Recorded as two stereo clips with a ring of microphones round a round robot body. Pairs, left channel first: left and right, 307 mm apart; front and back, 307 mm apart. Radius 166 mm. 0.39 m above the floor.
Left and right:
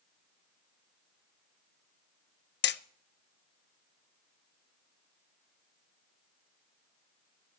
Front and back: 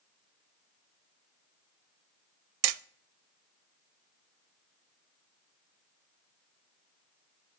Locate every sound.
2.6 s hammering: 150° left, 0.5 m